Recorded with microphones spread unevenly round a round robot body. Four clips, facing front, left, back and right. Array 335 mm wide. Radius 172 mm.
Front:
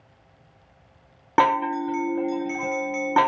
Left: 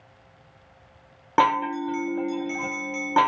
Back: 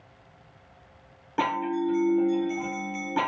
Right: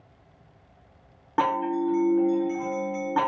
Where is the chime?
30° left, 0.8 m.